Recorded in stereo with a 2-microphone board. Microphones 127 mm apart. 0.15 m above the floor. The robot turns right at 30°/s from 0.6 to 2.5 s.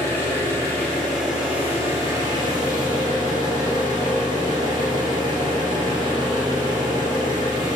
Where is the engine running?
160° left, 1.9 m; by 7.8 s 140° right, 1.9 m.